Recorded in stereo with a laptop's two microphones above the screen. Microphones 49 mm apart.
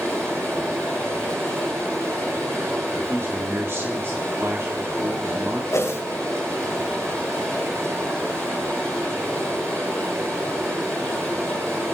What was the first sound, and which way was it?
Running water, 80° right.